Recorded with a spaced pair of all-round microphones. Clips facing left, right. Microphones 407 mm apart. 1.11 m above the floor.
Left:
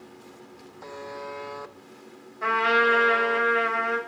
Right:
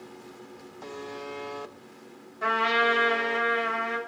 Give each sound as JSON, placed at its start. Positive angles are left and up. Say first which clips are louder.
{"t": 0.8, "sound": "a buzzer", "louder": "even", "side_deg": -50, "distance_m": 0.6}
{"t": 2.4, "sound": "a trumpet", "louder": "left 3 dB", "side_deg": -50, "distance_m": 2.5}